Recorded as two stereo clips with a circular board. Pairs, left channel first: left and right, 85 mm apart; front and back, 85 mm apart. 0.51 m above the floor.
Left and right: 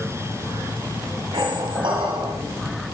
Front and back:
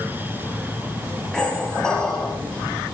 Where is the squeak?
80° right, 1.2 m.